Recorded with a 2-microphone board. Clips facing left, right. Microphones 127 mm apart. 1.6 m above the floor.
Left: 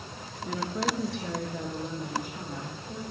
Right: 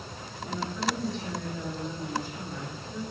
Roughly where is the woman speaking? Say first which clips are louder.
Left 1 dB; left.